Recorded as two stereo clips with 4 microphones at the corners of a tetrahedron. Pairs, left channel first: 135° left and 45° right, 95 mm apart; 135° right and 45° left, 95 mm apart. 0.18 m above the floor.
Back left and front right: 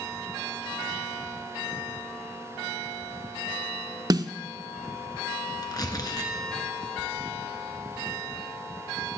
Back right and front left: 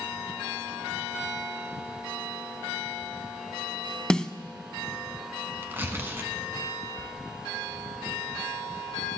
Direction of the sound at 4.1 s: 55° right.